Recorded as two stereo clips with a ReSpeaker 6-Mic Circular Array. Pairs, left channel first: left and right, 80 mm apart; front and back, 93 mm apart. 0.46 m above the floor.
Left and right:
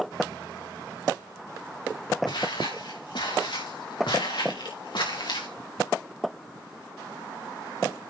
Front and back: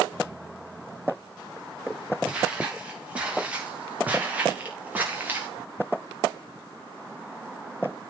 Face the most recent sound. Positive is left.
turn(degrees=110)